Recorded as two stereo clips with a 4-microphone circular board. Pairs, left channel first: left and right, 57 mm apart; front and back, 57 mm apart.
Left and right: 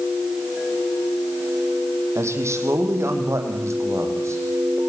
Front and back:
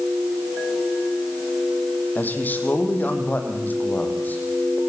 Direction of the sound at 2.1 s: 55° right.